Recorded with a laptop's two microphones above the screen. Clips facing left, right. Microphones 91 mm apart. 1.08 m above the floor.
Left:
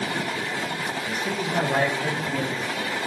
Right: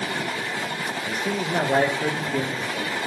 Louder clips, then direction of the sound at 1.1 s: Right 3 dB; 35° right (ahead or behind).